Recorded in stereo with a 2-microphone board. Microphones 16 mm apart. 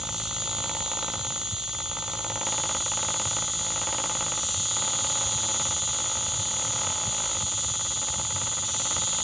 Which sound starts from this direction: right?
An insect, at 0.0 s.